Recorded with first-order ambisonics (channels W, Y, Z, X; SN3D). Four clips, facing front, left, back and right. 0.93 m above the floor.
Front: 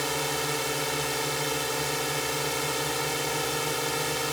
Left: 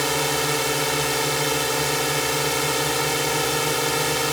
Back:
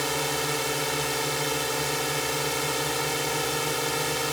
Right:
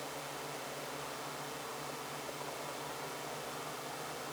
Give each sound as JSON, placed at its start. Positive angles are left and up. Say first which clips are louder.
{"t": 0.0, "sound": "a drone", "louder": "left 21 dB, back 1 dB", "azimuth_deg": 95}